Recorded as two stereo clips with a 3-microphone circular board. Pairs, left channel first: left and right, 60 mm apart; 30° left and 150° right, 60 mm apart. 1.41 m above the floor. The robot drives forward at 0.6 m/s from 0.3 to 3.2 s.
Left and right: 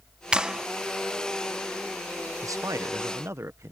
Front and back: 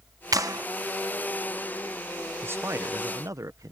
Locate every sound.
0.3 s a clap: 165° right; by 0.7 s 170° right
2.4 s a man speaking: 100° right; by 3.7 s 125° right